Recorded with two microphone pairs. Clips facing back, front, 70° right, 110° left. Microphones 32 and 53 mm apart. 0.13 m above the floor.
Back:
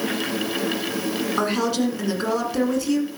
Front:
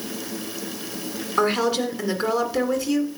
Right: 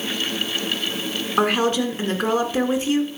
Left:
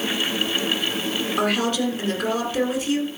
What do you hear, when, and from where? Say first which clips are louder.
1.4 s a woman speaking: front 3 dB, right 4 dB; 75° right, 1.7 m